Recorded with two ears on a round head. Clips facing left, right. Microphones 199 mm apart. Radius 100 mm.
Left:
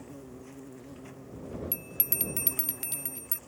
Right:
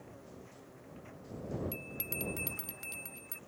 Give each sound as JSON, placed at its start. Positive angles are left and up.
{"t": 0.0, "sound": "an insect", "side_deg": 55}
{"t": 1.7, "sound": "a bell", "side_deg": 35}